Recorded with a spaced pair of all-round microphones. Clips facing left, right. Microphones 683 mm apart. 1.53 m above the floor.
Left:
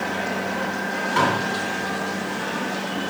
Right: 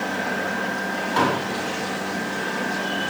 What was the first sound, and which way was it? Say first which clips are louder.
Dishes clattering: right 2 dB; 40° left (ahead or behind).